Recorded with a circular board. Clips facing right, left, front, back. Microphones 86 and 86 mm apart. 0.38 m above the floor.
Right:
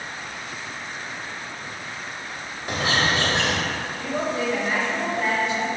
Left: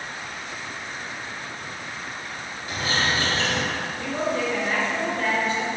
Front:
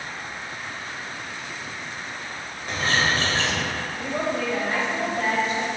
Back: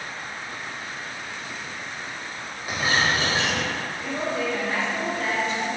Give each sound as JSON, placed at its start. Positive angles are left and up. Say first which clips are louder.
{"t": 2.7, "sound": "a bird", "louder": "right 3 dB, even", "azimuth_deg": -100, "distance_m": 0.6}
{"t": 4.0, "sound": "a woman speaking", "louder": "even, front 2 dB", "azimuth_deg": -25, "distance_m": 1.9}